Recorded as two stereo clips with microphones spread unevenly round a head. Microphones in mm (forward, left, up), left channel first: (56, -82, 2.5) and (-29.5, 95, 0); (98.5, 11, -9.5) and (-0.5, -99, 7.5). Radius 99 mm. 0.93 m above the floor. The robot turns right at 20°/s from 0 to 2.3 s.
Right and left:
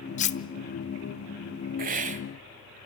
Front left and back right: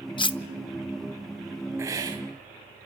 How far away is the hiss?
About 1.2 m.